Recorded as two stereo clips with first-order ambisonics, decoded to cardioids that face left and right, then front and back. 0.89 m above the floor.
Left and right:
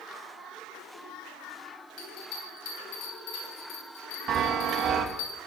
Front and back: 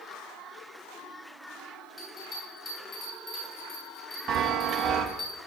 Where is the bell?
70° left, 5 m.